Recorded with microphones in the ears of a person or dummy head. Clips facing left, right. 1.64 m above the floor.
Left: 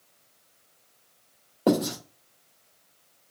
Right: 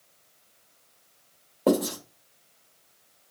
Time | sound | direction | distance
1.7 | writing | centre (ahead or behind) | 1.9 m